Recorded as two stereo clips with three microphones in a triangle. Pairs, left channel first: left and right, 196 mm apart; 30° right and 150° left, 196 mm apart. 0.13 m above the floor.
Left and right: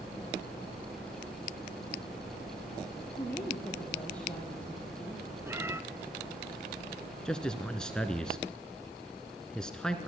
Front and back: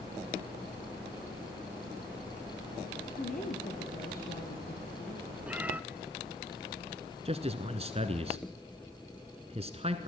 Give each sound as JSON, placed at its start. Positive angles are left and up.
{"t": 3.1, "sound": "a woman speaking", "azimuth_deg": 10, "distance_m": 3.5}
{"t": 5.5, "sound": "a cat meowing", "azimuth_deg": -140, "distance_m": 0.6}
{"t": 7.2, "sound": "a man speaking", "azimuth_deg": 175, "distance_m": 1.3}